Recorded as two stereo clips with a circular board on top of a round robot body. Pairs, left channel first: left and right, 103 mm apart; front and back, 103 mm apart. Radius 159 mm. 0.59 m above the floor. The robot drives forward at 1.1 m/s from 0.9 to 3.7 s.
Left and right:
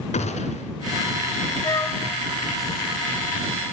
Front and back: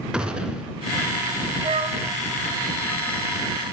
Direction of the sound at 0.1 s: 95° left.